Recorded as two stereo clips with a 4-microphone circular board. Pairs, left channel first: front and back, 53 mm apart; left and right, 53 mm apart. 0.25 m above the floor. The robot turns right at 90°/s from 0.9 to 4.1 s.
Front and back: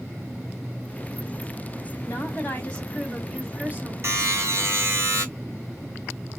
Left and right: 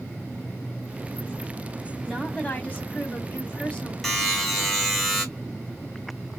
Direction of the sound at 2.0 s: 10° right.